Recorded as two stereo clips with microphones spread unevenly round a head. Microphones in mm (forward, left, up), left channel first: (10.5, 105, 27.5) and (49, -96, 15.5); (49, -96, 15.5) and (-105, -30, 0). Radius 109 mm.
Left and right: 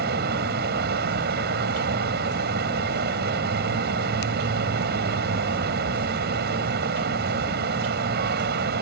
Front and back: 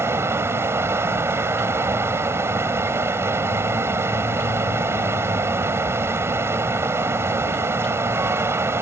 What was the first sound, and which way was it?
A fan, 125° right.